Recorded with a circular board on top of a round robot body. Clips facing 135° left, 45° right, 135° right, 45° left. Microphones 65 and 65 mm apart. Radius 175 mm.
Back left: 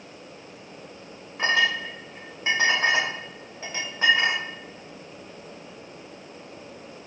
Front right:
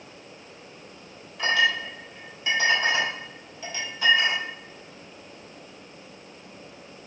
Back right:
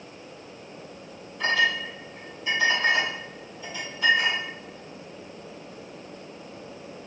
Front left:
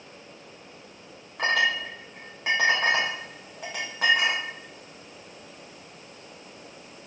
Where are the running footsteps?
I don't hear running footsteps.